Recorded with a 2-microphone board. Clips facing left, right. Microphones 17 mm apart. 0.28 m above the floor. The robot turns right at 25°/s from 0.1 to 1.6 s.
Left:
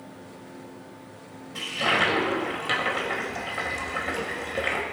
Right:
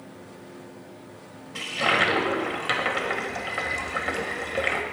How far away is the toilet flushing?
About 1.5 m.